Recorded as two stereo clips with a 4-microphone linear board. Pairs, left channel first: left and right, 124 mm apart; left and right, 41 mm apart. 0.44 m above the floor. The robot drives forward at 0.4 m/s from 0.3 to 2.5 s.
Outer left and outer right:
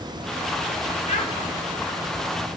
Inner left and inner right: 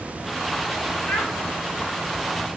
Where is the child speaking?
55° left (ahead or behind), 4.5 m.